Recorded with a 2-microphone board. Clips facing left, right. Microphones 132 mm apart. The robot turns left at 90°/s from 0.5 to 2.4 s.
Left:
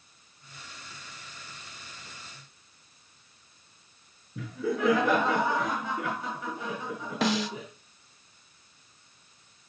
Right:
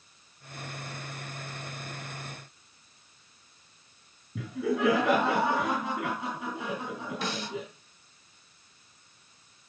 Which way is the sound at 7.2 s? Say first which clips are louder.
Left 11 dB; 85° left.